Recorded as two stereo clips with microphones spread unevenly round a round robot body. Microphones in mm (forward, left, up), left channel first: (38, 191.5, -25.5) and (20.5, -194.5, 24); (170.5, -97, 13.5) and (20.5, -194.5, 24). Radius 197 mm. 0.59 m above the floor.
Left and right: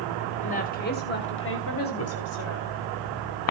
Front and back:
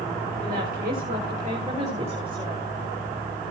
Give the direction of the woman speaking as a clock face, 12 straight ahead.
7 o'clock.